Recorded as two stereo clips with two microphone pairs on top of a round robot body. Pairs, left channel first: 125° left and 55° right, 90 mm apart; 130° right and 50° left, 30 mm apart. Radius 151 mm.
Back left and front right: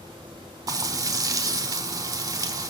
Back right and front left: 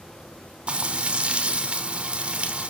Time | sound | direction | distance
0.7 | frying | straight ahead | 0.7 m